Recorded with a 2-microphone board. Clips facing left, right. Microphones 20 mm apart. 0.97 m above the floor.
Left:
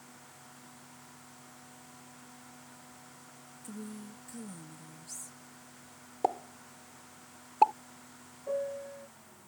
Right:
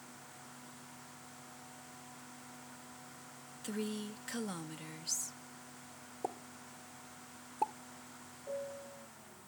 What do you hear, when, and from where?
3.6 s a woman speaking: 70° right (ahead or behind)
6.2 s a pop: 50° left (ahead or behind)
8.5 s a piano: 45° left (ahead or behind)